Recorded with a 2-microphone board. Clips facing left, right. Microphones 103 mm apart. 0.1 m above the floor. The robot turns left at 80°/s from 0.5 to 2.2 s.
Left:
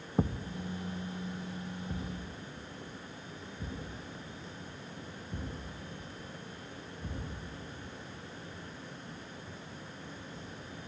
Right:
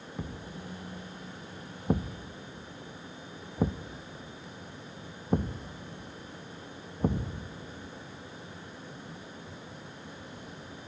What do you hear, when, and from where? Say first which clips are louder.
0.2 s a thud: left 9 dB; 40° left (ahead or behind), 1.2 m; by 7.6 s 85° right, 1.2 m